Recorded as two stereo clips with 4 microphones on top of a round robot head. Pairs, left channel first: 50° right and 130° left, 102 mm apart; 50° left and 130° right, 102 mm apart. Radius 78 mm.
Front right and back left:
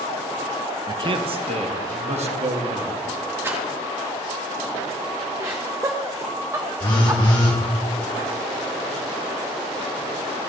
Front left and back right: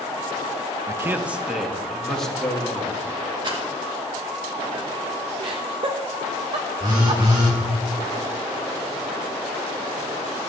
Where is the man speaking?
175° left, 0.6 m; by 3.0 s 130° left, 1.9 m.